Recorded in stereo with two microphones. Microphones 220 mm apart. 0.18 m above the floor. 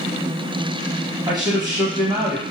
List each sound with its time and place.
1.3 s a man speaking: 20° right (ahead or behind), 1.0 m